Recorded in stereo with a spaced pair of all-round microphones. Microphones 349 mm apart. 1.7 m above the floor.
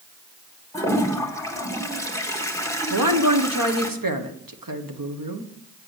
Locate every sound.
0.7 s a toilet flushing: 10° left (ahead or behind), 1.3 m
2.9 s a woman speaking: 70° right (ahead or behind), 1.4 m